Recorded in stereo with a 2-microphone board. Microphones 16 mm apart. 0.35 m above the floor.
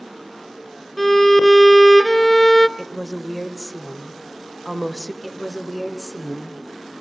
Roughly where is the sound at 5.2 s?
Left.